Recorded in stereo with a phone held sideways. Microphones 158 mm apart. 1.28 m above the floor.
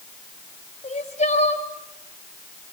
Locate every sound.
0.8 s crying: 50° left (ahead or behind), 2.5 m